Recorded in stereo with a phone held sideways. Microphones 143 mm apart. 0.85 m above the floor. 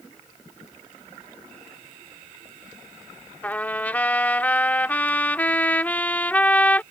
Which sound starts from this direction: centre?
A trumpet, at 3.4 s.